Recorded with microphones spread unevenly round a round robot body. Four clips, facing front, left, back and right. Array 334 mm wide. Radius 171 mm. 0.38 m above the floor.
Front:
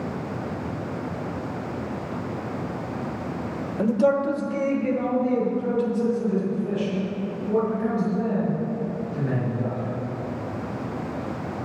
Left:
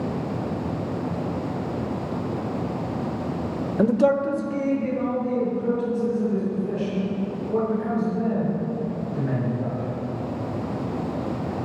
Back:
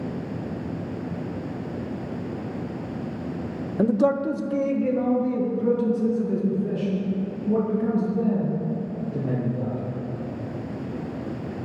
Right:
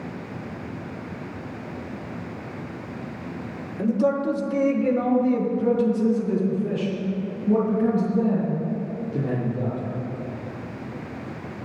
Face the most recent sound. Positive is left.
turn(degrees=-115)